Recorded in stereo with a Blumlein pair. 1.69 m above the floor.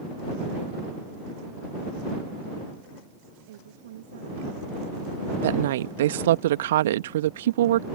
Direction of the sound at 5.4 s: 60° right.